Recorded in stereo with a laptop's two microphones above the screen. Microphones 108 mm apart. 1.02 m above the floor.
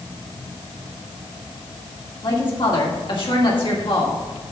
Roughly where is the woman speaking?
Left.